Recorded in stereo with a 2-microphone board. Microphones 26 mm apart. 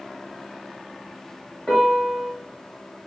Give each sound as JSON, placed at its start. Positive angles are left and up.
{"t": 1.7, "sound": "a piano", "side_deg": 30, "distance_m": 1.9}